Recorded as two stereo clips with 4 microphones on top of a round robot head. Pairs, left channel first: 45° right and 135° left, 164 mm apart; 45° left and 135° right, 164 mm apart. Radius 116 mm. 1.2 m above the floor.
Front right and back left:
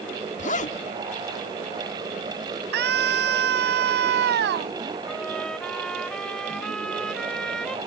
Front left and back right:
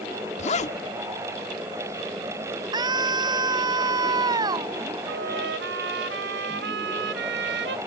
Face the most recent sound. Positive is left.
turn(degrees=-130)